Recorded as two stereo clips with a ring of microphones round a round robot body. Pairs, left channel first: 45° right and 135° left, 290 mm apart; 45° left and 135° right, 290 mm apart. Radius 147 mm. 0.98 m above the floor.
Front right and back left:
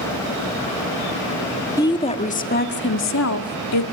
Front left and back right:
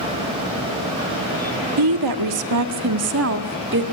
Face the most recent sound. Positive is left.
turn(degrees=-80)